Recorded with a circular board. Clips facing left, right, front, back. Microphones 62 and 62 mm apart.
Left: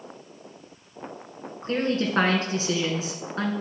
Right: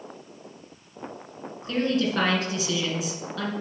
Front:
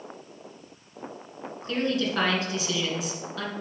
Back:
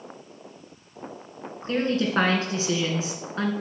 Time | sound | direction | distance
1.6 | a woman speaking | 130° left | 2.0 m